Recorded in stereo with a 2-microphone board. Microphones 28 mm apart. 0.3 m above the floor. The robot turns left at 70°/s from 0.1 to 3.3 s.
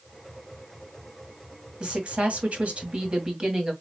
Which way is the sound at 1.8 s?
40° right.